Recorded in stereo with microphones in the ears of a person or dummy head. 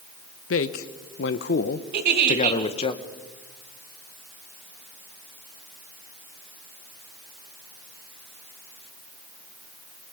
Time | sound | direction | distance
0.5 | a man speaking | 70° left (ahead or behind) | 1.1 m
1.9 | a giggle | 60° right (ahead or behind) | 1.9 m